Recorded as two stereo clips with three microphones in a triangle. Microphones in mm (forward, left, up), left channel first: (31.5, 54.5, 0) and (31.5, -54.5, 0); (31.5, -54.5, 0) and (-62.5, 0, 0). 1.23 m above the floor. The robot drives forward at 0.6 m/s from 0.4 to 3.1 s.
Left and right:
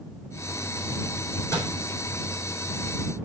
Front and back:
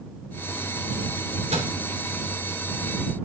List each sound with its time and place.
1.5 s a microwave: 150° left, 3.5 m